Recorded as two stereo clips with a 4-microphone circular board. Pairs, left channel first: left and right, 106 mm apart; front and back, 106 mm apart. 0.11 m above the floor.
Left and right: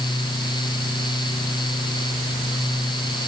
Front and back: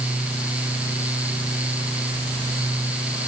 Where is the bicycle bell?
No bicycle bell in this recording.